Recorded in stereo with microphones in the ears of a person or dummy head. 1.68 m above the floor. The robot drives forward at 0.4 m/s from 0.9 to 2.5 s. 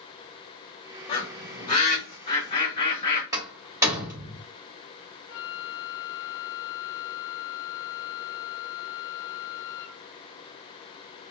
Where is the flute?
65° left (ahead or behind), 0.7 m.